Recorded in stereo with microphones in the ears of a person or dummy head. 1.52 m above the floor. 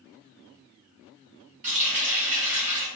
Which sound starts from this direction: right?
A running tap, at 1.6 s.